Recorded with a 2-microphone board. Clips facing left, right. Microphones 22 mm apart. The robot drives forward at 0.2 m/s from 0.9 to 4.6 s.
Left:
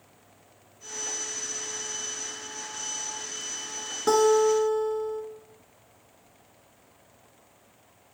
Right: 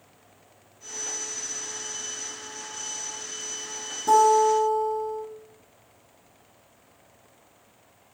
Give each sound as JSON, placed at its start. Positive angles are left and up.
{"t": 4.1, "sound": "a guitar", "side_deg": 75, "distance_m": 0.8}